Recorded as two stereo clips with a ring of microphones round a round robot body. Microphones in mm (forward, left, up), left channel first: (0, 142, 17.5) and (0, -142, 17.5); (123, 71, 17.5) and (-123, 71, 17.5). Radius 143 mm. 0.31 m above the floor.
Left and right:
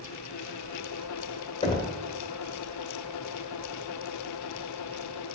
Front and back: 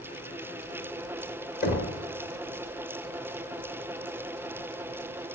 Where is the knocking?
25° left, 1.3 m.